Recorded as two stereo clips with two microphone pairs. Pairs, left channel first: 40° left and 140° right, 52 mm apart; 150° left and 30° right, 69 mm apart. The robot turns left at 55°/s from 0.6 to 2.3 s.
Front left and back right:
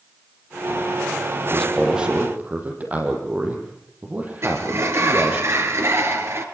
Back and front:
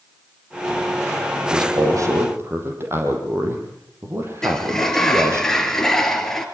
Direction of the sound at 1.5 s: 40° right.